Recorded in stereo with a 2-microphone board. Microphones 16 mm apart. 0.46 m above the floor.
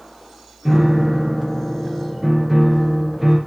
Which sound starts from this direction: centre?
A piano, at 0.7 s.